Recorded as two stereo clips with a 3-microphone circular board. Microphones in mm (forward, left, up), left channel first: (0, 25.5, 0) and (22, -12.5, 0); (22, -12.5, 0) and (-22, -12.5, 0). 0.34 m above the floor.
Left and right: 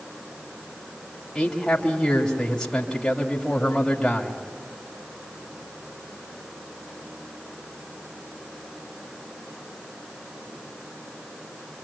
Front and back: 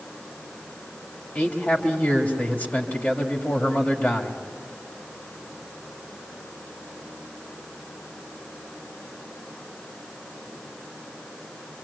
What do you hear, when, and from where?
1.4 s a man speaking: 50° left, 1.8 m